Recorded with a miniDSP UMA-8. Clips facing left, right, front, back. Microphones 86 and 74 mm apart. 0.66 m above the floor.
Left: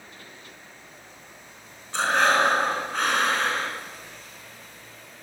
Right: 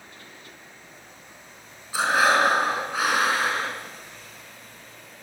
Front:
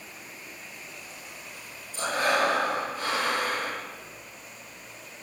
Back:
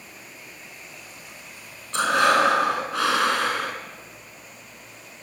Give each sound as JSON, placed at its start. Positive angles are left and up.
{"t": 1.9, "sound": "breathing", "azimuth_deg": -170, "distance_m": 5.0}